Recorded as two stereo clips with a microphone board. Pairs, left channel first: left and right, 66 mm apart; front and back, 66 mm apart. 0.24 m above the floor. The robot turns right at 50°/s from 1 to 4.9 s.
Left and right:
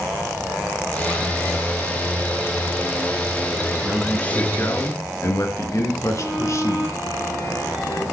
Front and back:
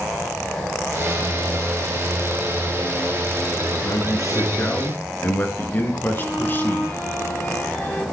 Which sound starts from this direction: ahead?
A man speaking, at 3.8 s.